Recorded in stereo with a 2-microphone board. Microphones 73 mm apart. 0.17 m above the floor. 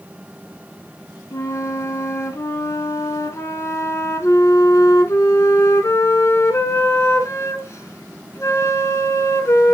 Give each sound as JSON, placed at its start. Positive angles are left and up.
{"t": 1.3, "sound": "a flute", "side_deg": 45, "distance_m": 1.4}